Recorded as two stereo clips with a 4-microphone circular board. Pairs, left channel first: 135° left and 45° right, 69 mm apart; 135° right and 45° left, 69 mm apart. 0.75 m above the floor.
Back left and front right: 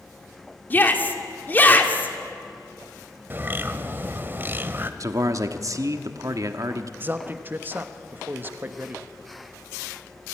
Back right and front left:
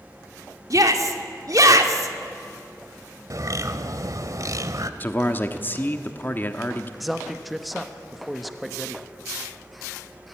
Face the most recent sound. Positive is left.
turn(degrees=-40)